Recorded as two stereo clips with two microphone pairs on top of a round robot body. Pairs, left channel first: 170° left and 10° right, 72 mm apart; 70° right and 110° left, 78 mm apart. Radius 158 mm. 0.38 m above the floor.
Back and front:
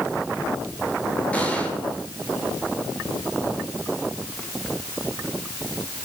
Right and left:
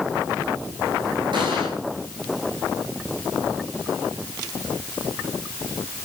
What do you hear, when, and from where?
1.3 s an explosion: 100° left, 9.5 m